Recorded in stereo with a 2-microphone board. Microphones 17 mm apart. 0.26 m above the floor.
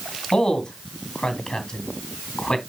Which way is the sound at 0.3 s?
50° left (ahead or behind).